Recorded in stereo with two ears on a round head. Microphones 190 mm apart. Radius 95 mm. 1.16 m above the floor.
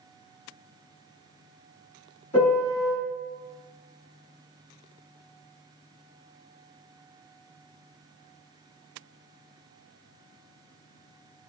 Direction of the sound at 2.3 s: 35° left (ahead or behind).